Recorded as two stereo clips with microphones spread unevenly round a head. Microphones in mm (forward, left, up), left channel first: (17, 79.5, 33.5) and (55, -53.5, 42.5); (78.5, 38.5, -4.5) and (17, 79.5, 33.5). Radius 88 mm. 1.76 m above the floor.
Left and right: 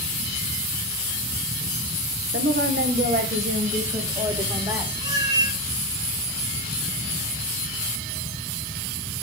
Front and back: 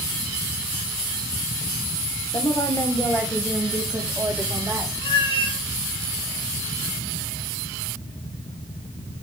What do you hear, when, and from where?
2.3 s a woman speaking: 100° right, 1.6 m; by 4.9 s 145° right, 3 m
5.0 s a cat meowing: 15° right, 4.5 m